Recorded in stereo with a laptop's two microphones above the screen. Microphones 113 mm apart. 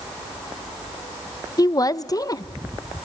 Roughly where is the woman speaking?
Left.